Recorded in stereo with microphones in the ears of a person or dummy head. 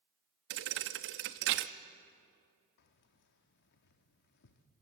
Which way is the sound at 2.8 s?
50° left (ahead or behind).